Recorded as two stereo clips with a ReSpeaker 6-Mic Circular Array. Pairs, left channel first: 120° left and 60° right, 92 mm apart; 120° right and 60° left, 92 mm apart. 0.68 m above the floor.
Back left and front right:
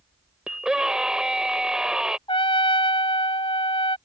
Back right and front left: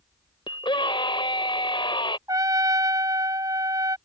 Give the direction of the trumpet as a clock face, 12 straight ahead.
8 o'clock.